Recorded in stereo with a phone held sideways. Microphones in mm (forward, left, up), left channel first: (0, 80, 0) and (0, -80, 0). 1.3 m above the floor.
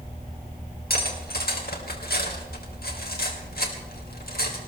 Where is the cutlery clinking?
80° left, 3 m.